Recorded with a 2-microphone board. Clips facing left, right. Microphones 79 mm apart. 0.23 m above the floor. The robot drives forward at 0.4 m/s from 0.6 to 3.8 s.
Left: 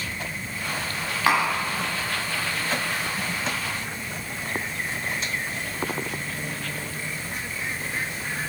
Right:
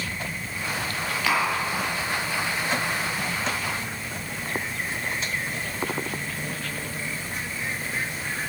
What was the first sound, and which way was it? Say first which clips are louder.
Tapping: left 3 dB; 35° left (ahead or behind).